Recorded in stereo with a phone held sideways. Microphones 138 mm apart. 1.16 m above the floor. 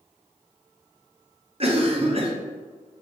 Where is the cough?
40° right (ahead or behind), 0.7 m.